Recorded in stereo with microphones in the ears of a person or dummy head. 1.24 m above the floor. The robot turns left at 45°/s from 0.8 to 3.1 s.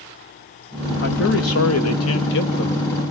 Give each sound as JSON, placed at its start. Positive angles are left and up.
{"t": 1.0, "sound": "a man speaking", "azimuth_deg": 125, "distance_m": 1.6}